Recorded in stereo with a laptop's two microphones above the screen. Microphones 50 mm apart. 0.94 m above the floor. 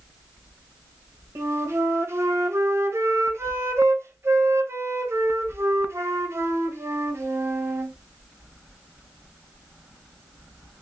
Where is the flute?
60° right (ahead or behind), 0.8 m.